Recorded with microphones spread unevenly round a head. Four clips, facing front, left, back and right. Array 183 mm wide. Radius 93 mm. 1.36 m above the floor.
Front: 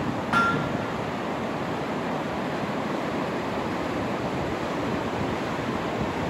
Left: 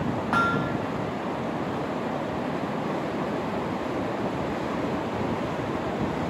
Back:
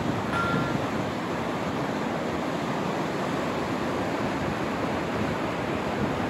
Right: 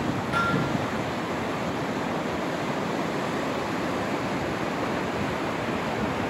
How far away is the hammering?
About 3.5 m.